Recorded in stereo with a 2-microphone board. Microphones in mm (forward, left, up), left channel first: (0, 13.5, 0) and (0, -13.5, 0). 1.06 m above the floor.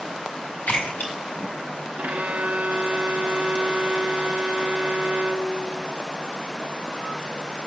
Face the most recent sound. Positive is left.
turn(degrees=-60)  # may be behind; listen again after turning